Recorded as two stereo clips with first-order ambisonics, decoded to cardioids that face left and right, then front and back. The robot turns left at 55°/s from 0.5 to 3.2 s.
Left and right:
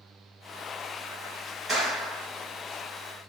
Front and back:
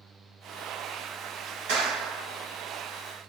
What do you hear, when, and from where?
1.7 s a clap: 165° right, 2.5 m; by 2.3 s 165° left, 2.5 m